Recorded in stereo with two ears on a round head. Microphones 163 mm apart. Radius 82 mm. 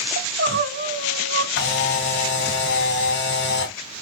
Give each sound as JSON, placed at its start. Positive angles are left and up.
{"t": 0.2, "sound": "crying", "side_deg": -60, "distance_m": 1.2}
{"t": 1.6, "sound": "a camera shutter", "side_deg": 65, "distance_m": 3.5}